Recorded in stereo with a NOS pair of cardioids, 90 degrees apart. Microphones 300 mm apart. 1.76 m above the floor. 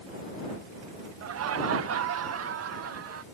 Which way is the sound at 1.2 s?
55° right.